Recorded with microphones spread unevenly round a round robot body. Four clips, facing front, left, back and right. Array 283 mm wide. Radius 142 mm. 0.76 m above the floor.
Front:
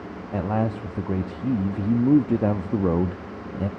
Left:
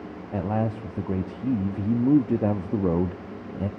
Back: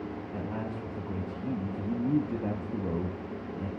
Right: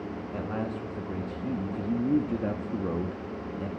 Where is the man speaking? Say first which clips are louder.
Left 7 dB, front 13 dB; 35° left, 0.9 m.